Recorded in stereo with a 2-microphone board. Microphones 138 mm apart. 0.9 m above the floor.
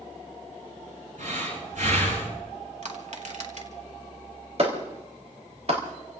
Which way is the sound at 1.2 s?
70° right (ahead or behind).